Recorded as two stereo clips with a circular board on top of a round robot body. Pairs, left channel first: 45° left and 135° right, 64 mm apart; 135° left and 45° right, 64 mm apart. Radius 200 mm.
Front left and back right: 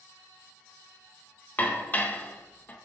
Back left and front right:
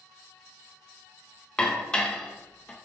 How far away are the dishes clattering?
About 0.6 m.